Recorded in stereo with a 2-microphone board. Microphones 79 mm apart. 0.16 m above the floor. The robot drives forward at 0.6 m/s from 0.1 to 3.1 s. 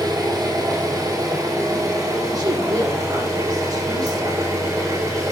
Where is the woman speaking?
45° right (ahead or behind), 7.5 m.